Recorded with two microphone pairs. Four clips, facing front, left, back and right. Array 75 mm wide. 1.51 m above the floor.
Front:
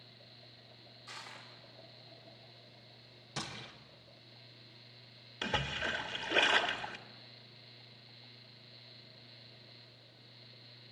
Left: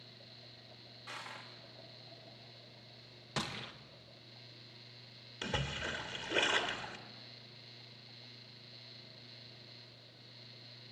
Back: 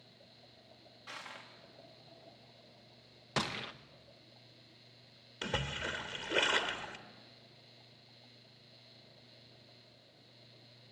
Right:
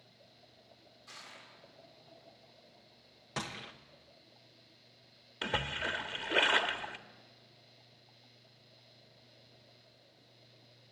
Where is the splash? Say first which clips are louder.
Right 4 dB, front 2 dB; 75° right, 1.2 m.